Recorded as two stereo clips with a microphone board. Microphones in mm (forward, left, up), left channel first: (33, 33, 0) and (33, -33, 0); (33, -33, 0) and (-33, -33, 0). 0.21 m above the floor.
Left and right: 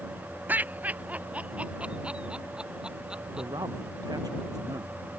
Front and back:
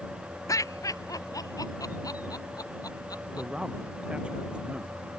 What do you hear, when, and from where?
0.5 s laughter: 30° right; by 3.5 s 10° right
3.4 s a man speaking: 105° right